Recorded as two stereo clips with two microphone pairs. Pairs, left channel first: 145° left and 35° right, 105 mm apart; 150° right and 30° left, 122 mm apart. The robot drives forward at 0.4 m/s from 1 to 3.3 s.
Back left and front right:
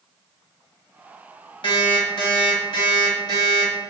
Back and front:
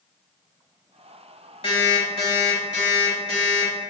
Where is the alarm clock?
175° left, 0.7 m.